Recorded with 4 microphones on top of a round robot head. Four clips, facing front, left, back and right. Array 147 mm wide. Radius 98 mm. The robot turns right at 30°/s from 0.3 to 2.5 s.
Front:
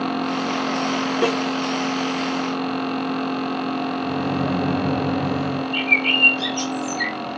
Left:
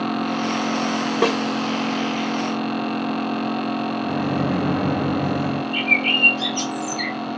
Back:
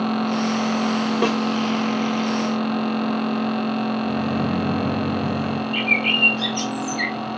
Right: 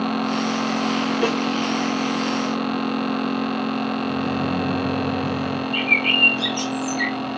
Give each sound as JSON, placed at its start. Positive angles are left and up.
{"t": 1.2, "sound": "a snare drum", "azimuth_deg": 95, "distance_m": 1.2}
{"t": 4.0, "sound": "a microwave", "azimuth_deg": 60, "distance_m": 0.7}
{"t": 5.7, "sound": "a bird", "azimuth_deg": 170, "distance_m": 1.1}